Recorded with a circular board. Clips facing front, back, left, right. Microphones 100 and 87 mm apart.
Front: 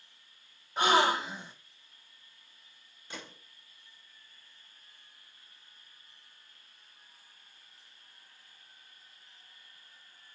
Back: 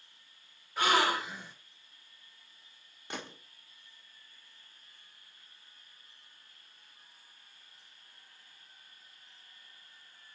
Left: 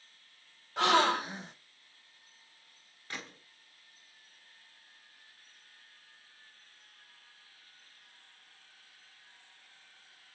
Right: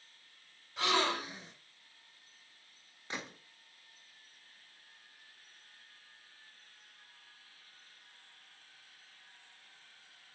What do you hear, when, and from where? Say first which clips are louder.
0.8 s a gasp: front 3 dB, left 6 dB; 65° left, 1.3 m
3.1 s a gunshot: back 4 dB, right 2 dB; 155° right, 1.6 m